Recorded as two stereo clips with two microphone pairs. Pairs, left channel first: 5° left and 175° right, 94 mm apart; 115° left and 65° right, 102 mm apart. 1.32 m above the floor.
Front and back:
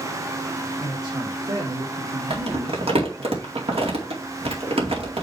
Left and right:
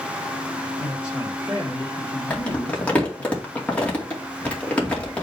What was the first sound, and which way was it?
A man speaking, 140° right.